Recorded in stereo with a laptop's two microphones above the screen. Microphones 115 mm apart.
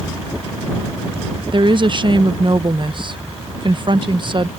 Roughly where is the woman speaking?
Right.